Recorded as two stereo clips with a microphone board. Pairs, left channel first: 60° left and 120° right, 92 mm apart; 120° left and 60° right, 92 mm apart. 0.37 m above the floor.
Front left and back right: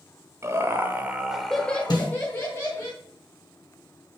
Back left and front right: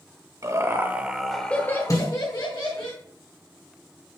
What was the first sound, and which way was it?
Laughter, 85° right.